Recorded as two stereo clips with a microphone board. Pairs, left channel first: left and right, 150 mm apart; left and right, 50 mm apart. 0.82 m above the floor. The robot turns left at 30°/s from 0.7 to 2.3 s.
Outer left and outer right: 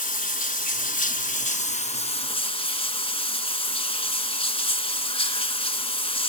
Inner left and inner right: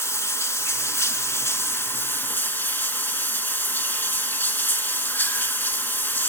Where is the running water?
90° left, 1.3 m; by 6.3 s 45° left, 1.3 m.